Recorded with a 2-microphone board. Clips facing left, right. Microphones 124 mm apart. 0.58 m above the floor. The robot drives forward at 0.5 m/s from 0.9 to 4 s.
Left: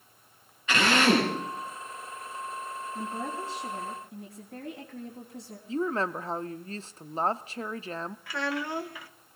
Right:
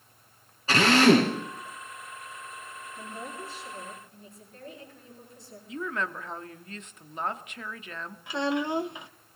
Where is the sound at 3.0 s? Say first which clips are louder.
Left 5 dB; 80° left, 4.5 m.